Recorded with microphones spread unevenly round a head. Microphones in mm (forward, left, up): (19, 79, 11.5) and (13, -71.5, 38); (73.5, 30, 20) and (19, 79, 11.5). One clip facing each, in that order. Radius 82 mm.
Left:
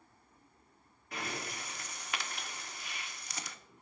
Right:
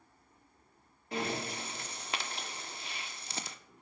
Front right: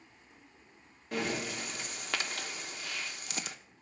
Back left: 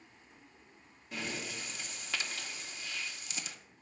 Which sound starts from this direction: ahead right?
Breathing, at 1.1 s.